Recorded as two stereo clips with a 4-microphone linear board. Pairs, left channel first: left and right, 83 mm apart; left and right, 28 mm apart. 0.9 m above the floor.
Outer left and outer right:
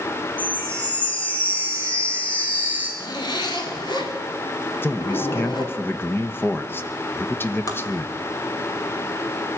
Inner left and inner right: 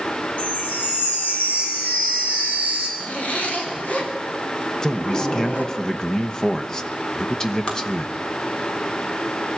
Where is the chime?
85° left, 5 m.